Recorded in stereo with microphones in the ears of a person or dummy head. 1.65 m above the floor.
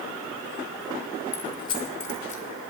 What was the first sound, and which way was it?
Keys jangling, 15° left (ahead or behind).